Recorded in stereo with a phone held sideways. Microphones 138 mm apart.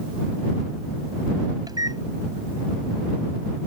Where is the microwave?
30° right (ahead or behind).